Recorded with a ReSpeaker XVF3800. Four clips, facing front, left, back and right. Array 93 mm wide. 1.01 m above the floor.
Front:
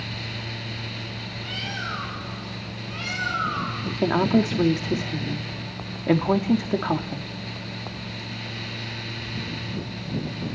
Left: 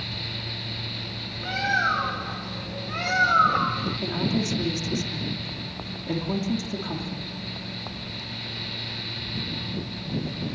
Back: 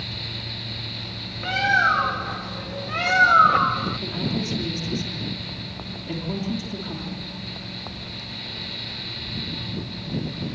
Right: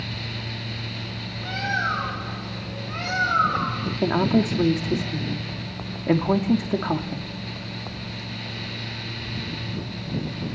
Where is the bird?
175° left, 1.6 m.